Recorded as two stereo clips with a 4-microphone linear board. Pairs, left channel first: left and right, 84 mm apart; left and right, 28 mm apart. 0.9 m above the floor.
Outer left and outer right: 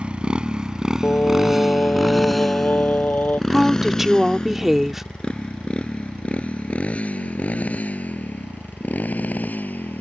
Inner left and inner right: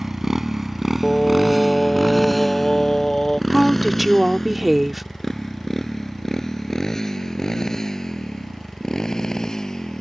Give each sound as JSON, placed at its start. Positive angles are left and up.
{"t": 0.0, "sound": "a motorcycle", "side_deg": -15}
{"t": 1.0, "sound": "singing", "side_deg": 20}
{"t": 3.5, "sound": "a woman speaking", "side_deg": -5}